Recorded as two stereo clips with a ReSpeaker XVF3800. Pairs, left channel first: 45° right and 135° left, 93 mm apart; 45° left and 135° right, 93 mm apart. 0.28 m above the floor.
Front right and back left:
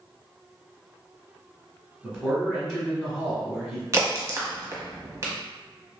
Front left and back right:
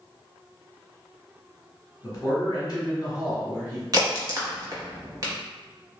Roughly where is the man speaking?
Ahead left.